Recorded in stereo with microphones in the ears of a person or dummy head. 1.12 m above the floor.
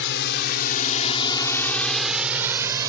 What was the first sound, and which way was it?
A drone, 70° left (ahead or behind).